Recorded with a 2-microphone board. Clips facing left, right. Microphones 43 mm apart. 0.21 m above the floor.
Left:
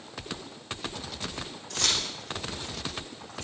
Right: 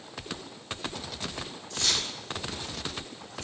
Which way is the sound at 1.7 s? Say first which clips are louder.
Left 1 dB; 75° left (ahead or behind).